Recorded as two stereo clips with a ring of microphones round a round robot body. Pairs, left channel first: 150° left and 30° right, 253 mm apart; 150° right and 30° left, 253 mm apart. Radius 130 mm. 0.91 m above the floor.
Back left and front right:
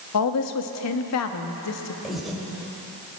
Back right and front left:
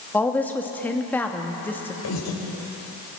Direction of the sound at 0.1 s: 125° left.